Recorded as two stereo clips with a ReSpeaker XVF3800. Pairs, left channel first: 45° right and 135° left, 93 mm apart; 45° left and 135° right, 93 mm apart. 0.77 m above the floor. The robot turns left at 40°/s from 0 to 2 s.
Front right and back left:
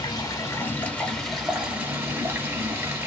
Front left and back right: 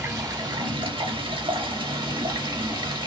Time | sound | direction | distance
0.0 | running water | 85° right | 0.7 m